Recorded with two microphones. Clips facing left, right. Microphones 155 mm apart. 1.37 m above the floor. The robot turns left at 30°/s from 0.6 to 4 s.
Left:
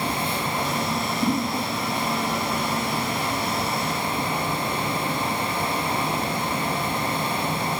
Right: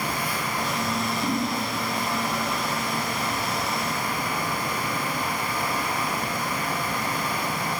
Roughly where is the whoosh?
Left.